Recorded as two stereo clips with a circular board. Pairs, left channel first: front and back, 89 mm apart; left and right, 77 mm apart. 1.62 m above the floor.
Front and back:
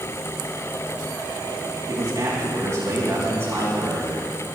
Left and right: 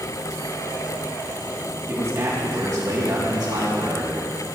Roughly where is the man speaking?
Behind right.